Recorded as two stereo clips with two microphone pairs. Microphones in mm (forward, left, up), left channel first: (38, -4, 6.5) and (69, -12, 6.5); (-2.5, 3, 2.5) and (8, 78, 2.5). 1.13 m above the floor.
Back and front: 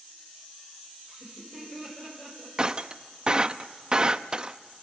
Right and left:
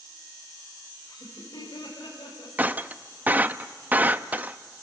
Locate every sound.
1.1 s laughter: 125° right, 5.5 m; by 2.5 s 120° right, 6.5 m
2.6 s breaking glass: 30° left, 0.6 m